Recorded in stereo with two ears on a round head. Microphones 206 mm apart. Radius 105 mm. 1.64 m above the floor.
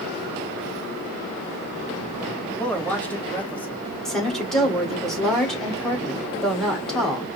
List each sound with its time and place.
2.6 s a man speaking: 5° left (ahead or behind), 1.5 m
4.0 s a woman speaking: centre (ahead or behind), 1.9 m